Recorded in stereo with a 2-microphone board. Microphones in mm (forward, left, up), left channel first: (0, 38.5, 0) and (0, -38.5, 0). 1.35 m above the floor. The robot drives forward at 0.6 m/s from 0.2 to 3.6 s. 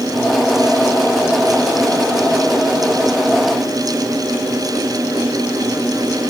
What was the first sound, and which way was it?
Only background noise.